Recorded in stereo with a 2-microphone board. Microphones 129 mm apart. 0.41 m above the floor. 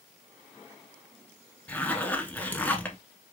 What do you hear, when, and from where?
1.7 s a zipper: 15° left (ahead or behind), 0.9 m